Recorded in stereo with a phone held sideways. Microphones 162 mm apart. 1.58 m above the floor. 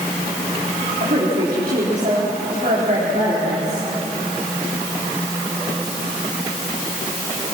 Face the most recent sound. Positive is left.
turn(degrees=-60)  # may be behind; listen again after turning